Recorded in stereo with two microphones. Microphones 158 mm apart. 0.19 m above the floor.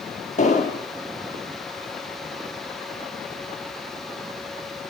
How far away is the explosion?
About 4 m.